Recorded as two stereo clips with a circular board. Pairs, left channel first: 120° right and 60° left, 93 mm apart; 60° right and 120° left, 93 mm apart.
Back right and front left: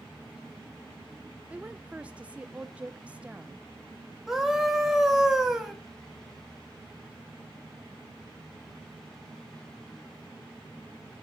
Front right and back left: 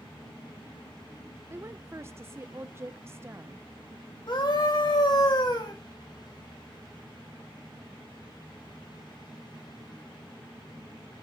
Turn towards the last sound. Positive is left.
turn(degrees=-25)